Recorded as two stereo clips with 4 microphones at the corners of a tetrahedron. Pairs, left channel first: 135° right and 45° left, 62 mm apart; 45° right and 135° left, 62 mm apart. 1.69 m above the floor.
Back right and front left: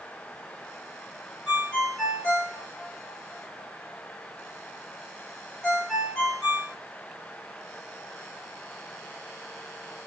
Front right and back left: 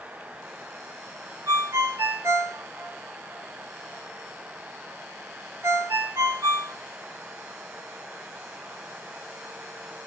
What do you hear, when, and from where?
1.5 s a ringtone: 150° left, 1.0 m